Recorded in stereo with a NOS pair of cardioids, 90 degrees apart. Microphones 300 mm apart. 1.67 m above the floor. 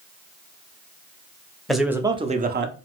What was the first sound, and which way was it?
A man speaking, straight ahead.